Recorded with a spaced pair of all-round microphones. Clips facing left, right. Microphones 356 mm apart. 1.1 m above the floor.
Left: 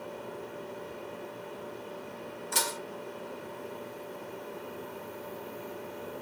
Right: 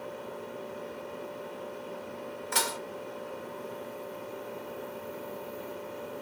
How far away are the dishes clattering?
About 0.8 m.